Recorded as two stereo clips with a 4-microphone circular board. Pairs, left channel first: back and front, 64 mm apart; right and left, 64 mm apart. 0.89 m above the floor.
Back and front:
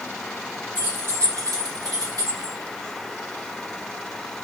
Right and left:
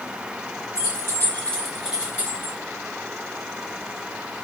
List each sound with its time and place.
0.8 s keys jangling: 60° right, 1.1 m; by 2.5 s 35° left, 1.4 m